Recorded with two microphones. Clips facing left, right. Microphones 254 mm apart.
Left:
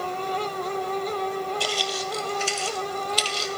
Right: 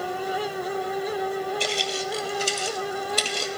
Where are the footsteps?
20° right (ahead or behind), 1.1 m; by 3.5 s 55° right (ahead or behind), 1.3 m.